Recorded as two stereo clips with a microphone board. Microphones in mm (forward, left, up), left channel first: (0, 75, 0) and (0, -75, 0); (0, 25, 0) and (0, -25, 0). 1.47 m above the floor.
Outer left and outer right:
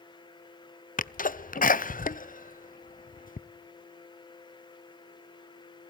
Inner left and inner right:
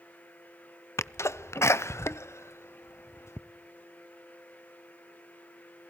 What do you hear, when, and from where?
1.0 s a sneeze: 65° left (ahead or behind), 0.7 m